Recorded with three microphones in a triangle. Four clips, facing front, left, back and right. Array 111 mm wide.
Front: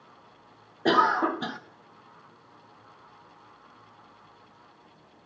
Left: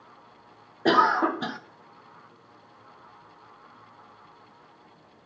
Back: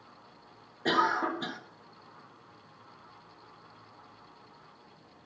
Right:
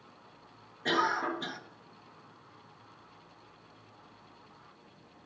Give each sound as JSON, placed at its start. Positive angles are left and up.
{"t": 0.8, "sound": "a cough", "azimuth_deg": 60, "distance_m": 0.7}